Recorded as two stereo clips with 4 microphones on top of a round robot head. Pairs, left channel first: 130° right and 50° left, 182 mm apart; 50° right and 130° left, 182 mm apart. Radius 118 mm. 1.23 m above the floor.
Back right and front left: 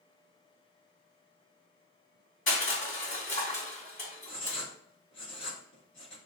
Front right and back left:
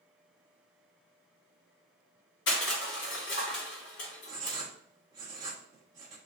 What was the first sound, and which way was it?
Crushing, 80° right.